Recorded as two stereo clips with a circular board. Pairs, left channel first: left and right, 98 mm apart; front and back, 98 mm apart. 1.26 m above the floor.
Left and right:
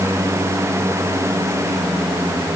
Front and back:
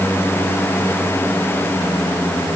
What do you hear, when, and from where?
Only background noise.